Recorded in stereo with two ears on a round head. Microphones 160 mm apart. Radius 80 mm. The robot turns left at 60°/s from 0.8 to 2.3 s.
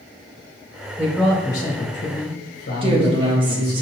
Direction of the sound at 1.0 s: 170° right.